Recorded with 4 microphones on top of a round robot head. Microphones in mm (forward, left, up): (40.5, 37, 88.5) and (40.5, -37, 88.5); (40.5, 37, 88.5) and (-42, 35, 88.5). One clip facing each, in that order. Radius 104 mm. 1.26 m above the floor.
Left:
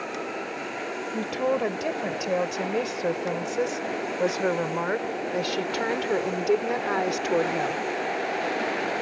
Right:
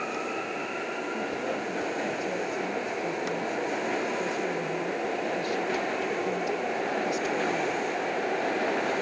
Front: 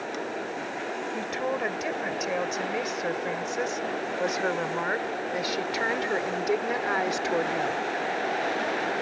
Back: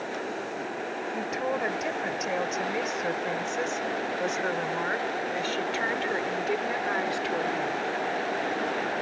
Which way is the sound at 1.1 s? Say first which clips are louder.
Left 9 dB, back 1 dB; 95° left.